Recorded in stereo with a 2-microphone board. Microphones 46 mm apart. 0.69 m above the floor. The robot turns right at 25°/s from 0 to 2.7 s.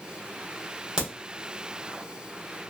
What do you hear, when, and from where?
1.0 s a crack: 20° right (ahead or behind), 1.4 m; by 1.1 s 15° right (ahead or behind), 1.4 m